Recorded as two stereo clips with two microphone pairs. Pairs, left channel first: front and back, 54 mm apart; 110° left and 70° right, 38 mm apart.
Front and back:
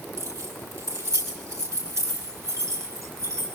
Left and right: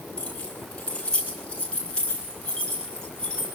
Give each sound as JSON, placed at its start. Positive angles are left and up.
{"t": 0.2, "sound": "keys jangling", "azimuth_deg": 165, "distance_m": 10.0}